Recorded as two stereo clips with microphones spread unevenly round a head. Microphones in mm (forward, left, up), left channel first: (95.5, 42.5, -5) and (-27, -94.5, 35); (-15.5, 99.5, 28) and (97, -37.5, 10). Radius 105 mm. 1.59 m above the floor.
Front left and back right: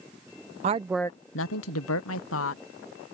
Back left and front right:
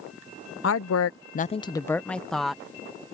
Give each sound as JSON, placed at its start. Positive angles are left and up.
{"t": 0.6, "sound": "a woman speaking", "azimuth_deg": 170}